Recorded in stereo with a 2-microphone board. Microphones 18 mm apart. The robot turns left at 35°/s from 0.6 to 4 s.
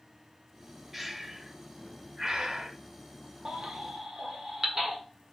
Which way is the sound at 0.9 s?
15° right (ahead or behind).